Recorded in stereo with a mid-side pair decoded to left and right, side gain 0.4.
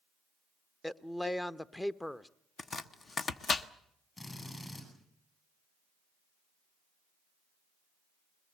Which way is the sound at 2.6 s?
45° left.